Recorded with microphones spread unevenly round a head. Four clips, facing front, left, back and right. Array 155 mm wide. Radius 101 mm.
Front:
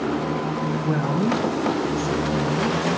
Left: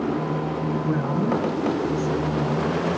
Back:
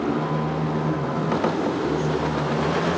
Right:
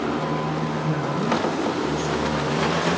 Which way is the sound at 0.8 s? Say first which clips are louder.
Left 1 dB, front 2 dB; 10° right.